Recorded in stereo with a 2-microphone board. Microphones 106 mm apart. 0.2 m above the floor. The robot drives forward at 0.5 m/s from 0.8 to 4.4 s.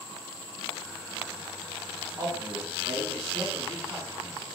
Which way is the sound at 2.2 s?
35° right (ahead or behind).